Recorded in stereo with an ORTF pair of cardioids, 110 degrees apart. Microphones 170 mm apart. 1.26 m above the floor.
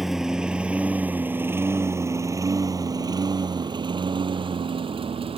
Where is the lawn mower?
Straight ahead; by 5.4 s 35° right.